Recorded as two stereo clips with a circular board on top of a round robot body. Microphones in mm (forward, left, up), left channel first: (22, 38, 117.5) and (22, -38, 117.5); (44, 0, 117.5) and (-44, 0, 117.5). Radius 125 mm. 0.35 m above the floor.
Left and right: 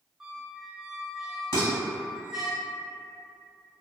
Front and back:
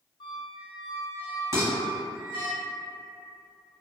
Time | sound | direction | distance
0.2 | a squeak | 5° right | 0.7 m
1.5 | dishes clattering | 55° left | 1.6 m